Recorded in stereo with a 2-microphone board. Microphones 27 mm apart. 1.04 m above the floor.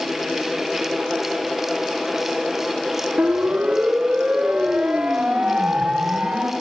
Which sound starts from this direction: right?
A siren, at 3.2 s.